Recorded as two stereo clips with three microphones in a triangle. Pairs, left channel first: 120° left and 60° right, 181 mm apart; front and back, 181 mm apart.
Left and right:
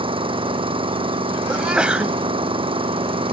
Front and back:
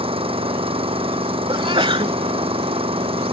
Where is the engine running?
120° right.